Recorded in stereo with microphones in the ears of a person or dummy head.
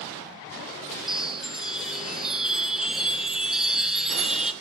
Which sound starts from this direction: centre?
A chime, at 1.1 s.